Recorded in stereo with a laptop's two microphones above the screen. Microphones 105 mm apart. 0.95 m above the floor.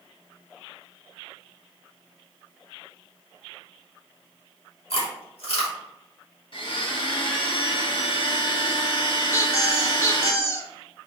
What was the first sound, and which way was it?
Chewing, 70° left (ahead or behind).